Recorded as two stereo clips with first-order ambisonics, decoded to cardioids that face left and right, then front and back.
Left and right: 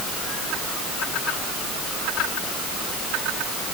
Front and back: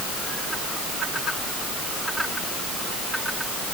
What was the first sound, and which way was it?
Only background noise.